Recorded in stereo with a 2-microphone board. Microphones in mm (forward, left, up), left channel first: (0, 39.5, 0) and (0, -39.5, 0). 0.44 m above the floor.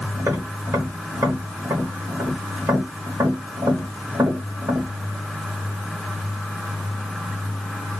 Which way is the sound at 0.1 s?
40° right (ahead or behind).